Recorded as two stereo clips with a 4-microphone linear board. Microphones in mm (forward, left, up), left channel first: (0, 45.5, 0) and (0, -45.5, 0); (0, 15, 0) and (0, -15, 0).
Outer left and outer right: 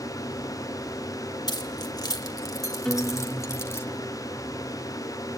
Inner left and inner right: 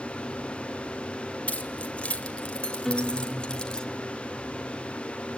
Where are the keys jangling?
50° left (ahead or behind), 2.5 m; by 3.9 s 30° left (ahead or behind), 1.8 m.